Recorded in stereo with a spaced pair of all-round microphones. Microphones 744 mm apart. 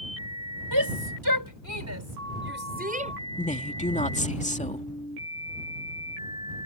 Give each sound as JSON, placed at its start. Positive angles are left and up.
{"t": 0.7, "sound": "a shout", "side_deg": -30}
{"t": 3.4, "sound": "a woman speaking", "side_deg": 10}